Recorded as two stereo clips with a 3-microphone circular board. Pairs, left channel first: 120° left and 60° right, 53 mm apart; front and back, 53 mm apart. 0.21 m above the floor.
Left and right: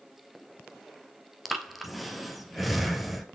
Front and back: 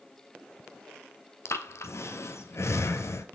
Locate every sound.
1.4 s breathing: 30° left, 0.7 m